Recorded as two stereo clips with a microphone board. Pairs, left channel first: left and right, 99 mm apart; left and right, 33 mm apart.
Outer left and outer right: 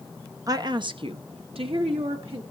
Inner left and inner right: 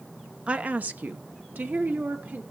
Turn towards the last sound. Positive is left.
turn(degrees=-75)  # may be behind; listen again after turning